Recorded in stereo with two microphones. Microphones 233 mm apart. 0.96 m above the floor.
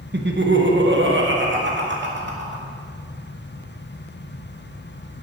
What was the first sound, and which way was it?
Laughter, 50° right (ahead or behind).